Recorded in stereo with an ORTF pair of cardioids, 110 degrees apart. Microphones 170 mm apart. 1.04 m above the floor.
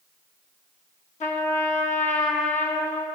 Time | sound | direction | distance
1.2 | a trumpet | 45° left | 1.1 m